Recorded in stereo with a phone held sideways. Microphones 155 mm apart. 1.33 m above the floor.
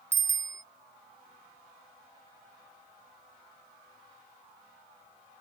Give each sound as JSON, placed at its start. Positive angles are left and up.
{"t": 0.1, "sound": "a bicycle bell", "side_deg": -15}